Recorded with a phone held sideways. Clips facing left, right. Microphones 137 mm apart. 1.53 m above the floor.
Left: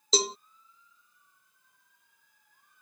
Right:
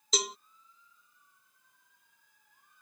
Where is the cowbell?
30° left (ahead or behind).